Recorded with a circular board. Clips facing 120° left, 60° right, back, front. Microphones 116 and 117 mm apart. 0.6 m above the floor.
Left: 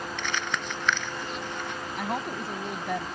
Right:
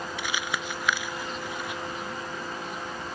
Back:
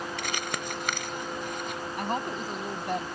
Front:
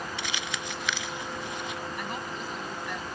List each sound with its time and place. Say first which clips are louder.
0.2 s crumpling: even, back 2 dB; 140° right
2.0 s a woman speaking: left 4 dB, back 5 dB; 135° left